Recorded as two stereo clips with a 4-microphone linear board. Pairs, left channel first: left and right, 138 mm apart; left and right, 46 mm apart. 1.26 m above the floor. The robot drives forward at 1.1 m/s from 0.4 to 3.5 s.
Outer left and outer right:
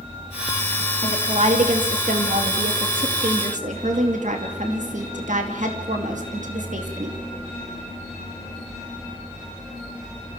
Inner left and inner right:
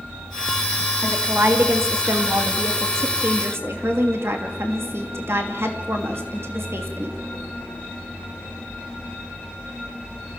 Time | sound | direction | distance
1.0 | a woman speaking | 50° right (ahead or behind) | 3 m